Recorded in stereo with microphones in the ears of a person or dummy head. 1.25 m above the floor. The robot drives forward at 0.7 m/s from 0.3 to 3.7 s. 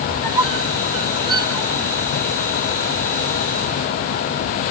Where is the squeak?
30° right (ahead or behind), 1.9 m; by 2.0 s 20° right (ahead or behind), 3 m.